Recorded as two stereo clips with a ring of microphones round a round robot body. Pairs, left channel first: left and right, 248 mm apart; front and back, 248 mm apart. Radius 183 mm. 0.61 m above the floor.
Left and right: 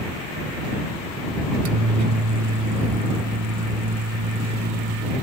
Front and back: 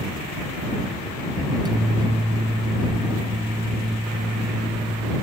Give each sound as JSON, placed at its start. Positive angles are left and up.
{"t": 1.5, "sound": "a microwave", "azimuth_deg": -100}